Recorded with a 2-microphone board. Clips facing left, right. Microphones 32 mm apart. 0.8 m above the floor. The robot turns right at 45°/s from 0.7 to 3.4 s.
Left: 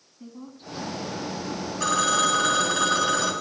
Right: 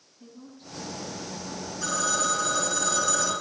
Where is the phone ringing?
80° left, 3.5 m; by 3.3 s 150° left, 3.5 m.